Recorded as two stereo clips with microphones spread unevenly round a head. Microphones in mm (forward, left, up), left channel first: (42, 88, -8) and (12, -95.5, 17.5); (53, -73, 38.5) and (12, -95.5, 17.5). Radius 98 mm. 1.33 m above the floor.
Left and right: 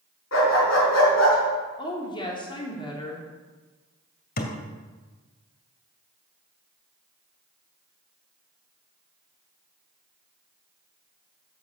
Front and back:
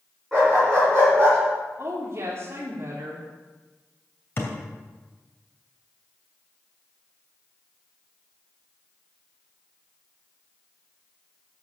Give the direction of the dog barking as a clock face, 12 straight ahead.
8 o'clock.